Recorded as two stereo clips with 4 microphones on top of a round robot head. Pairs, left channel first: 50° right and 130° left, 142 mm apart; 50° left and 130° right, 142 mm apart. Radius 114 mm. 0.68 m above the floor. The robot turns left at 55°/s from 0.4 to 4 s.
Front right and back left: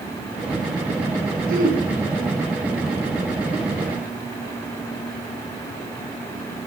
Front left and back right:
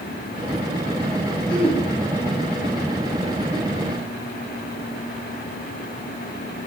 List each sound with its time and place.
1.5 s throat clearing: 110° left, 5.5 m; by 1.8 s 95° left, 5.5 m